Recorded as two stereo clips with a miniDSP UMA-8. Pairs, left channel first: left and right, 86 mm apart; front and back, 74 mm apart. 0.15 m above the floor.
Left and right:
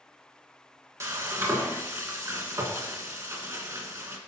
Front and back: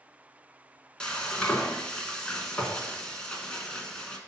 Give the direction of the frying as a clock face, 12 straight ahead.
2 o'clock.